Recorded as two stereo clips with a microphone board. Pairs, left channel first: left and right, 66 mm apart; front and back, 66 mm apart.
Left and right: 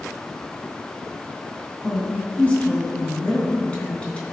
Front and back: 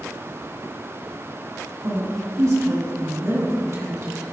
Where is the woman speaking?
155° left, 2.5 m.